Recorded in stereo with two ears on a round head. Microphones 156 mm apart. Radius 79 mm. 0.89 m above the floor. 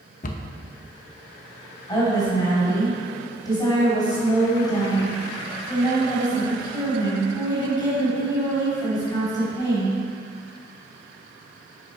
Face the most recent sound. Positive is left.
turn(degrees=25)  # may be behind; listen again after turning